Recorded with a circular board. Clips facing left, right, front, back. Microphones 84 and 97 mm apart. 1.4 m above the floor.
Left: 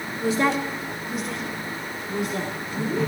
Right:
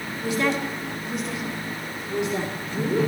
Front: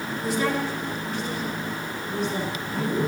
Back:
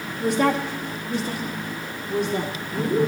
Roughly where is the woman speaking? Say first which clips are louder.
Left 2 dB, back 5 dB; behind left.